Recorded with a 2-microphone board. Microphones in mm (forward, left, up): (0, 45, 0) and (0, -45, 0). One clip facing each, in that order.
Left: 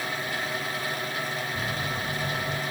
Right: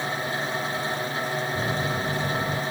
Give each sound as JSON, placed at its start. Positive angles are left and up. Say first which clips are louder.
{"t": 1.6, "sound": "a microwave", "louder": "right 4 dB", "side_deg": -35}